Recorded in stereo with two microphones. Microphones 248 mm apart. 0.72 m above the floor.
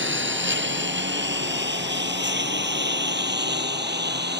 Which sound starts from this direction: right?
A lawn mower, at 0.0 s.